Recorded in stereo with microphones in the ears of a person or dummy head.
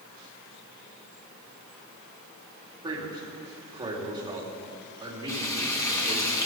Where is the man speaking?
20° right (ahead or behind), 3 m.